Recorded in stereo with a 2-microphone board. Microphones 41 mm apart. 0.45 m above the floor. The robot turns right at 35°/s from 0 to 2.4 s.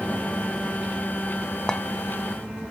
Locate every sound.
1.7 s a clink: 15° left (ahead or behind), 0.6 m; by 1.8 s 10° left (ahead or behind), 0.6 m